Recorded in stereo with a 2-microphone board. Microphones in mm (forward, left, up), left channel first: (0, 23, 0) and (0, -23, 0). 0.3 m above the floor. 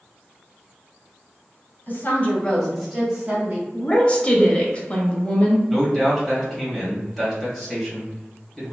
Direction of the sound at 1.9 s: 45° left (ahead or behind).